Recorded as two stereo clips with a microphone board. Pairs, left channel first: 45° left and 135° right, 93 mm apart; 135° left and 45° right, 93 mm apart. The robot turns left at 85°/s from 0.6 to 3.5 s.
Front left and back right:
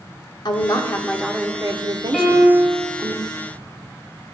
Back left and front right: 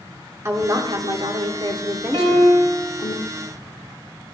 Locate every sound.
0.5 s a woman speaking: 10° left, 1.5 m; by 3.1 s 155° left, 1.5 m
2.1 s a piano: 45° right, 3.5 m; by 2.8 s 100° right, 3.5 m